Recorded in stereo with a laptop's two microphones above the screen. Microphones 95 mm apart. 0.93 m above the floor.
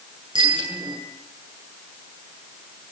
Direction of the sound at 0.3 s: 60° right (ahead or behind).